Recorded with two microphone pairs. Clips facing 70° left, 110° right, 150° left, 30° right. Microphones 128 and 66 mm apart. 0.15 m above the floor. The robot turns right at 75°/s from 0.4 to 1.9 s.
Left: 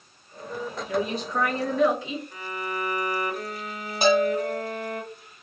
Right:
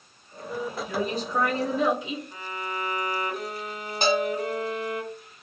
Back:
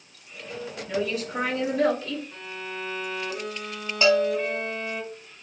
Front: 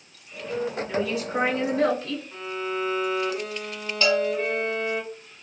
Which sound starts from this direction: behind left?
A bell, at 4.0 s.